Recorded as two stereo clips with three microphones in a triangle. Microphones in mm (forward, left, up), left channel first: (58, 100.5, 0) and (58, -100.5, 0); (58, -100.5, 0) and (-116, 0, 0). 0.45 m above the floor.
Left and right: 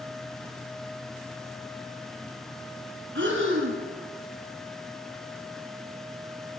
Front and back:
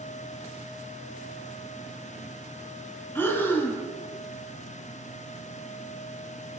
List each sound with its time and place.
3.1 s breathing: 110° right, 1.8 m